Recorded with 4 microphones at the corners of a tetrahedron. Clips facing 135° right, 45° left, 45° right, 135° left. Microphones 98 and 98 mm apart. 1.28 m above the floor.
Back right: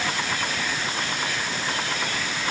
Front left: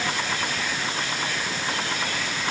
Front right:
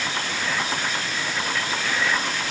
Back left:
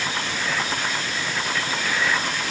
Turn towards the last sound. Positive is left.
No sound to turn to.